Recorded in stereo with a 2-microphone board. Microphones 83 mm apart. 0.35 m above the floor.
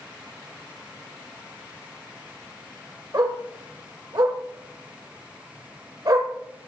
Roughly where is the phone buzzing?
No phone buzzing in this recording.